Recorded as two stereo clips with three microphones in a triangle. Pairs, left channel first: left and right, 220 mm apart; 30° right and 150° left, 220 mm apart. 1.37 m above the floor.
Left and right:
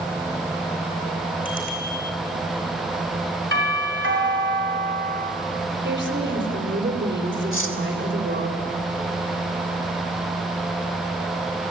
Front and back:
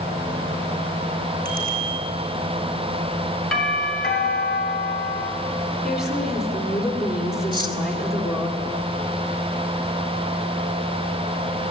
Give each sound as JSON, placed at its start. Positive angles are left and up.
{"t": 1.4, "sound": "a bicycle bell", "azimuth_deg": 105, "distance_m": 9.0}
{"t": 3.5, "sound": "a doorbell", "azimuth_deg": -120, "distance_m": 5.0}
{"t": 5.8, "sound": "a woman speaking", "azimuth_deg": -120, "distance_m": 4.5}
{"t": 7.5, "sound": "cutlery clinking", "azimuth_deg": 85, "distance_m": 2.5}